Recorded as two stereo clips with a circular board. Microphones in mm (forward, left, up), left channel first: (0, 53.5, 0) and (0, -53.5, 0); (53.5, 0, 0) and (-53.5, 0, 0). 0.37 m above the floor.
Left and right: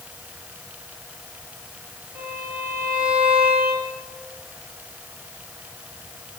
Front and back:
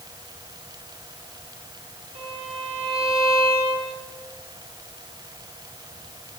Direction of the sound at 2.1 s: 160° right.